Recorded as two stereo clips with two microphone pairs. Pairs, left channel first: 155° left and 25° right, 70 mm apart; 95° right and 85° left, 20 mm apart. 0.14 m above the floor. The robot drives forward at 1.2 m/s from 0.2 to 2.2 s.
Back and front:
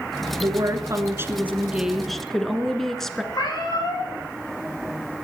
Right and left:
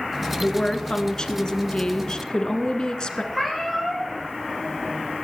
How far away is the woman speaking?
About 2 m.